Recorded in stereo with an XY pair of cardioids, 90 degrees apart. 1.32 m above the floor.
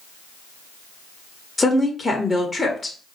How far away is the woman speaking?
About 1.2 m.